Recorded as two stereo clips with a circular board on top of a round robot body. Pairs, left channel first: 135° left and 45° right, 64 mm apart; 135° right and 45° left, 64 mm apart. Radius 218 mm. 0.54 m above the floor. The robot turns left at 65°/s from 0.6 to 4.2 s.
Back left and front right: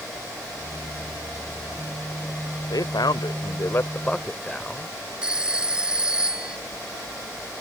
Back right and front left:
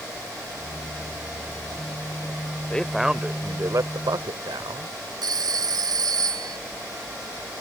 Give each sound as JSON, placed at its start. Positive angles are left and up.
{"t": 2.7, "sound": "a man speaking", "azimuth_deg": 150}
{"t": 5.2, "sound": "a phone ringing", "azimuth_deg": 30}